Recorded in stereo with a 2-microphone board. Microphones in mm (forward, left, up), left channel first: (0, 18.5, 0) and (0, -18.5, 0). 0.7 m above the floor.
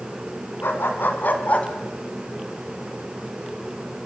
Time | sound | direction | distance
0.6 | a dog barking | 70° left (ahead or behind) | 2.5 m